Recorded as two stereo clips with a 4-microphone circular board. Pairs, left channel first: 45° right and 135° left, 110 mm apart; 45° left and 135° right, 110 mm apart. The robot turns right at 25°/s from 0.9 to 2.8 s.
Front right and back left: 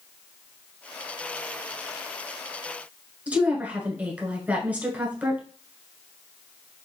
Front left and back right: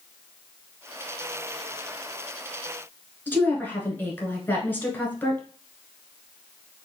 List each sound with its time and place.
3.3 s a woman speaking: 85° left, 1.1 m